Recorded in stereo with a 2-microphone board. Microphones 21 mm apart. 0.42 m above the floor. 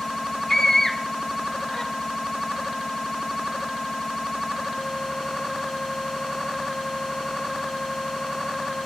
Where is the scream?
20° left (ahead or behind), 0.8 m.